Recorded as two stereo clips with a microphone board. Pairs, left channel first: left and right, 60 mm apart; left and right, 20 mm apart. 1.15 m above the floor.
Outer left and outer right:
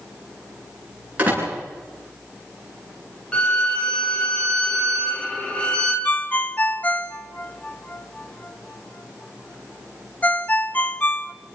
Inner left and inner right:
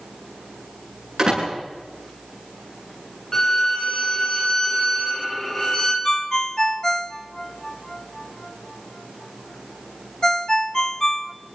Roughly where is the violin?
Centre.